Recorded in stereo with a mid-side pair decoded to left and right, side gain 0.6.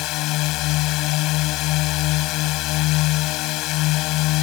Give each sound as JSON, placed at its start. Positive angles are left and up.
{"t": 0.0, "sound": "a drone", "azimuth_deg": 70}